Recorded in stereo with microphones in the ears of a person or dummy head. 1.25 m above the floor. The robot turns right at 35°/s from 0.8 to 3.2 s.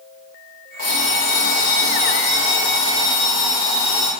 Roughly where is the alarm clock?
Left.